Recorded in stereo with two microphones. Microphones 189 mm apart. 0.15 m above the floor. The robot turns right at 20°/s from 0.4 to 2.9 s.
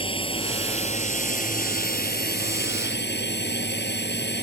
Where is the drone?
30° left; by 4.4 s 80° left.